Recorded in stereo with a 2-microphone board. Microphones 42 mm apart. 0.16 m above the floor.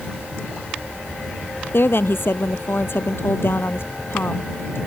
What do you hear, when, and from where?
1.7 s a woman speaking: 65° left (ahead or behind)